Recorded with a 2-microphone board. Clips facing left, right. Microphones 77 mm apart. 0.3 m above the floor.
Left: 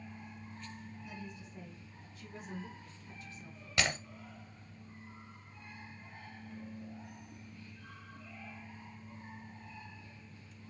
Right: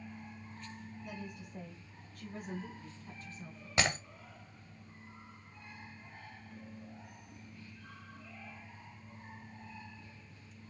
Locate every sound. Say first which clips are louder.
1.0 s a woman speaking: right 3 dB; 55° right (ahead or behind), 2 m; by 3.7 s 35° right (ahead or behind), 3.5 m
3.8 s breaking glass: right 1 dB; 25° right (ahead or behind), 1.7 m